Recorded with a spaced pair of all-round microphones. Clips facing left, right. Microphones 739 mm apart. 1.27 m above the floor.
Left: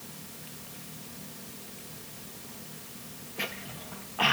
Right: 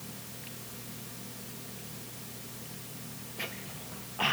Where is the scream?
I don't hear a scream.